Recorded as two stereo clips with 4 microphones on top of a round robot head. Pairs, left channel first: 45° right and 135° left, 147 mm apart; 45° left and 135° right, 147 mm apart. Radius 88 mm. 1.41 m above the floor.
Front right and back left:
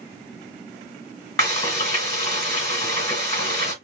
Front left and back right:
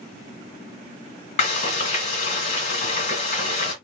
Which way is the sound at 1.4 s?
15° left.